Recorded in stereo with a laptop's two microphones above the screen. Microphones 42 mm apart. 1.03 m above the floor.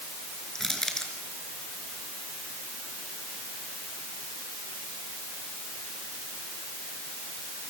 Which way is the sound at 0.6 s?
10° left (ahead or behind).